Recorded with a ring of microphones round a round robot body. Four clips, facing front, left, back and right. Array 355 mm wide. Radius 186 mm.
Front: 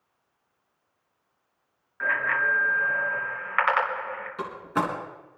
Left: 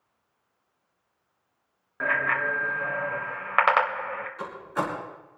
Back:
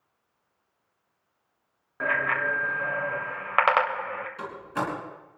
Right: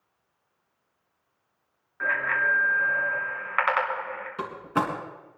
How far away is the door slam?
About 4.5 m.